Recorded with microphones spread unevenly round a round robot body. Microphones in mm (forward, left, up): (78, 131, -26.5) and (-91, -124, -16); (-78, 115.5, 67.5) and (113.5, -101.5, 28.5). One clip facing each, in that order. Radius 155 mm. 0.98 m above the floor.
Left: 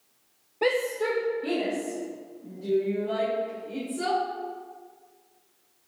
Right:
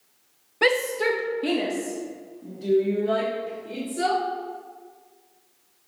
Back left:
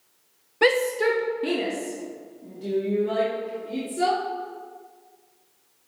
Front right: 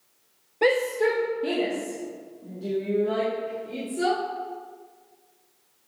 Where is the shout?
165° right, 0.6 m; by 4.2 s 150° right, 3.5 m.